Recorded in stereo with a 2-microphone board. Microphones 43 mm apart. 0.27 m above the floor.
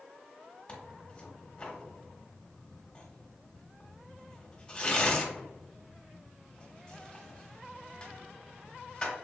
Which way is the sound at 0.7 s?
25° left (ahead or behind).